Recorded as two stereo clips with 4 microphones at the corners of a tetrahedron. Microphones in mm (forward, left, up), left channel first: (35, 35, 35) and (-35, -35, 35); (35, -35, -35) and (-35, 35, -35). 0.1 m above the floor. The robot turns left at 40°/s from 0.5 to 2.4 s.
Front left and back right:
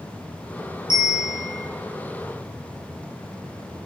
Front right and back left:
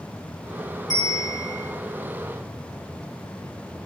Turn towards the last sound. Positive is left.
turn(degrees=-160)